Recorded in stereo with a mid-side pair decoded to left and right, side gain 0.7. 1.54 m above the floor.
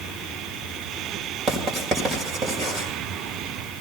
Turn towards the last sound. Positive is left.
turn(degrees=-35)